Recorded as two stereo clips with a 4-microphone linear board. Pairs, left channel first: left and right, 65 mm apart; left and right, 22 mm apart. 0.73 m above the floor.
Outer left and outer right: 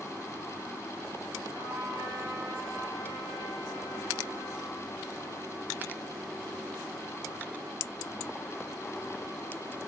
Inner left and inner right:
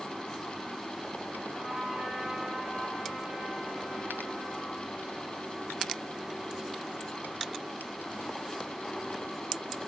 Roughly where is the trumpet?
Right.